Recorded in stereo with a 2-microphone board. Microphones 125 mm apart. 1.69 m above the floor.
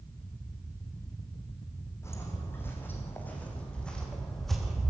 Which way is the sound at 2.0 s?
20° left (ahead or behind).